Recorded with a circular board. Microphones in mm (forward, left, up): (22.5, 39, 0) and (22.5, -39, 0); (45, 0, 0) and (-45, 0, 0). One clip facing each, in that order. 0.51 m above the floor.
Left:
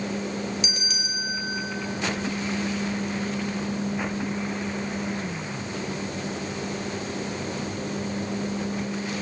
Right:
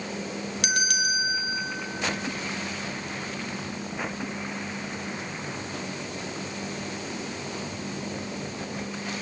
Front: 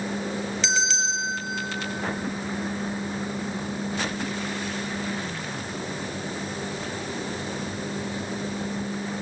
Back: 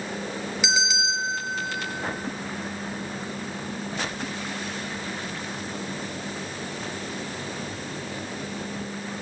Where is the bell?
100° right, 1.2 m.